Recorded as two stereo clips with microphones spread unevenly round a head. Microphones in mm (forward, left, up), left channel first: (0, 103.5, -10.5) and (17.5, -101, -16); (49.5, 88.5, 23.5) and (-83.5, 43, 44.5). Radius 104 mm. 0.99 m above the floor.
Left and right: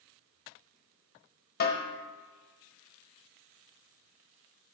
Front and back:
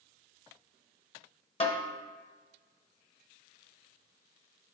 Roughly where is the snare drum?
Ahead left.